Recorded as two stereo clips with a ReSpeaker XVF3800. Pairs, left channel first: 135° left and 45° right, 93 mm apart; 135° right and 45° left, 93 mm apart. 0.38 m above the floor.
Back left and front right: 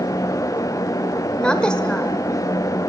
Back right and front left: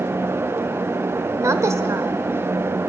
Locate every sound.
1.3 s a woman speaking: 65° left, 1.3 m